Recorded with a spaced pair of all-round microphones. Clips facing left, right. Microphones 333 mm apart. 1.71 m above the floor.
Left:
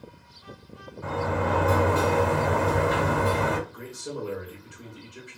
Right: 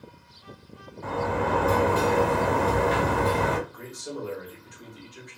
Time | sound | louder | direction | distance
1.0 | a sliding door | even | 10° left (ahead or behind) | 1.9 m
3.7 | a man speaking | left 1 dB | 35° left (ahead or behind) | 0.9 m